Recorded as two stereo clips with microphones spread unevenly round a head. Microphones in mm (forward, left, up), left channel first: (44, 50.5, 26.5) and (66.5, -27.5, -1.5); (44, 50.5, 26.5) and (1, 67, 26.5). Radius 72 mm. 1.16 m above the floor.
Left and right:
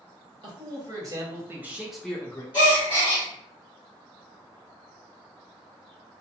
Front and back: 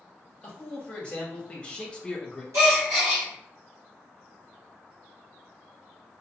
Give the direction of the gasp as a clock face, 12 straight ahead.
5 o'clock.